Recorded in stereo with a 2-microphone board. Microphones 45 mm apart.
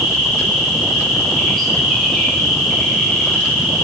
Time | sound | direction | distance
0.0 | an insect | 5° left (ahead or behind) | 6 m